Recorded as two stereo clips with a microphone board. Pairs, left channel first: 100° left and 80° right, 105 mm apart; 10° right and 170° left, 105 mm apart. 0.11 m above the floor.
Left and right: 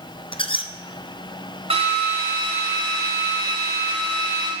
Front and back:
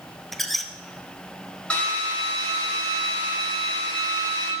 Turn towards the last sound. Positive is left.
turn(degrees=-90)